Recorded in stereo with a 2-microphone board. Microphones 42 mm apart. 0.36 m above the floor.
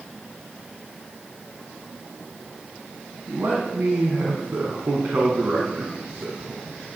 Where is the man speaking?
70° right (ahead or behind), 3 m; by 6.6 s 45° right (ahead or behind), 3.5 m.